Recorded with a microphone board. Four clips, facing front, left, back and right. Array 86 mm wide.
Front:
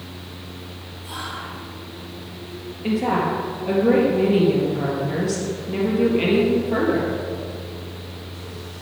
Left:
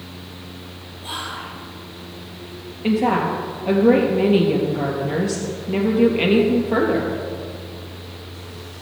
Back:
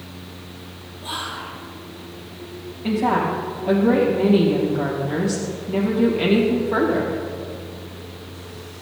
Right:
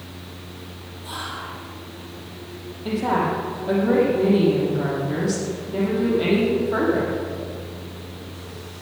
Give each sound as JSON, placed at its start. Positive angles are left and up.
{"t": 1.0, "sound": "whispering", "azimuth_deg": 120, "distance_m": 3.0}
{"t": 2.8, "sound": "a woman speaking", "azimuth_deg": 85, "distance_m": 3.5}